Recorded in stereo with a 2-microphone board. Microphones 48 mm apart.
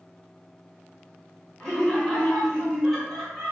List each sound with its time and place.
1.6 s laughter: 15° left (ahead or behind), 1.5 m; by 3.5 s 5° right (ahead or behind), 1.4 m